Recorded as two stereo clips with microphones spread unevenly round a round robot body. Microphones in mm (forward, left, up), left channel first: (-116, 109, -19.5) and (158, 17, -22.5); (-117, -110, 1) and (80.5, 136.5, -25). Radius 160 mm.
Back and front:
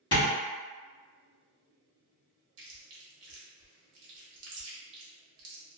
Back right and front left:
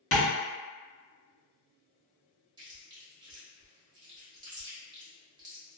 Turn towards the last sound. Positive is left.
turn(degrees=-15)